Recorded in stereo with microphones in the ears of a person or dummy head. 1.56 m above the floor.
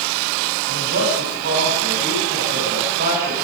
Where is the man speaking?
60° right (ahead or behind), 10 m; by 3.4 s 50° right (ahead or behind), 12 m.